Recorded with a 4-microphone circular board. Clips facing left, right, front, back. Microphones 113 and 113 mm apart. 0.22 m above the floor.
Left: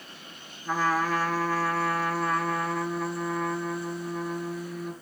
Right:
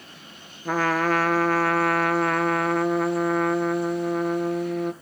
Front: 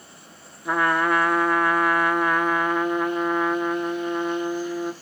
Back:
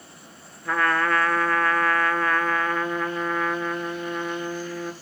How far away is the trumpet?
About 0.5 m.